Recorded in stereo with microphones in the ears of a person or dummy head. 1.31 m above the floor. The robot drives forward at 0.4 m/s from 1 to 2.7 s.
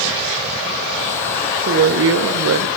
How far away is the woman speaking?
About 0.5 m.